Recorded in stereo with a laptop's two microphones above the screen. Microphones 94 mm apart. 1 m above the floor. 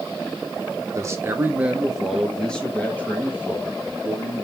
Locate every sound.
0.9 s a man speaking: 35° right (ahead or behind), 1.0 m; by 4.4 s 30° left (ahead or behind), 2 m